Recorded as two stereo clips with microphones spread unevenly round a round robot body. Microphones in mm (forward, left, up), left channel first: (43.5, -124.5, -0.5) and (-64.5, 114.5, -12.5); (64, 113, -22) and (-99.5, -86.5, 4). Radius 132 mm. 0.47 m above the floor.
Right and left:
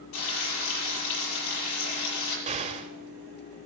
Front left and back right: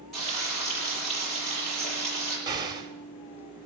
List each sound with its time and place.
0.1 s frying: 35° right, 8.5 m
2.5 s an explosion: 155° left, 1.5 m